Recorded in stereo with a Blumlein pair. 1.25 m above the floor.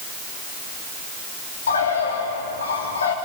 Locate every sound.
1.7 s a bird: 70° left, 3 m